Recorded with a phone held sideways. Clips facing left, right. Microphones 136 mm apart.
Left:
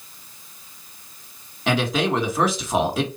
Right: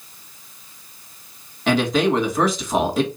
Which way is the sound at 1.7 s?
5° left (ahead or behind).